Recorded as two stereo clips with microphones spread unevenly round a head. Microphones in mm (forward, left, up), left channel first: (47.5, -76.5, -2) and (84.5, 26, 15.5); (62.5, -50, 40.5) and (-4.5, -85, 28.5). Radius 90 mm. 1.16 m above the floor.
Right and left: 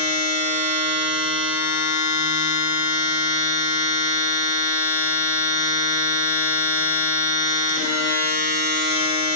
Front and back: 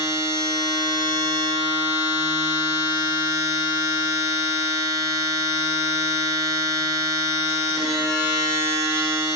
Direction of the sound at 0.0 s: 130° left.